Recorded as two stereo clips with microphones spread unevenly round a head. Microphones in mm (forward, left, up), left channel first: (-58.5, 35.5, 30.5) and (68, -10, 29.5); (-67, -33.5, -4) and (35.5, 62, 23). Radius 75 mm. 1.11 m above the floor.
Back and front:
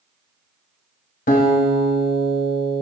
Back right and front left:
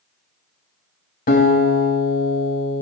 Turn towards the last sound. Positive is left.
turn(degrees=-165)